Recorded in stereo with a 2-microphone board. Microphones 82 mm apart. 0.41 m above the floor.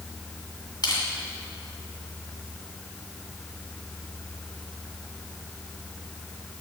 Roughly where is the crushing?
Left.